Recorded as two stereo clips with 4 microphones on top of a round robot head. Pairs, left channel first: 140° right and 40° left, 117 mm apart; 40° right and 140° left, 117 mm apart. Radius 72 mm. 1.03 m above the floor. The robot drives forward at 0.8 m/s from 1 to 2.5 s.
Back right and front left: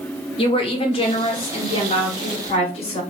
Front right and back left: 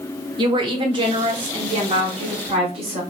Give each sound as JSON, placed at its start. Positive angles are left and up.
{"t": 0.4, "sound": "a woman speaking", "azimuth_deg": -175, "distance_m": 1.4}